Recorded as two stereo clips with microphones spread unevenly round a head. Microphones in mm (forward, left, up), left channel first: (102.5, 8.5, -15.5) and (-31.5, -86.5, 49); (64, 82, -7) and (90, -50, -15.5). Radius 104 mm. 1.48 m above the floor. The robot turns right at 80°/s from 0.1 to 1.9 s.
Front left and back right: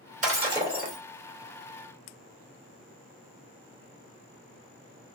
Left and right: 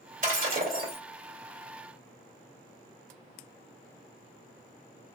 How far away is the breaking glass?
About 2.5 m.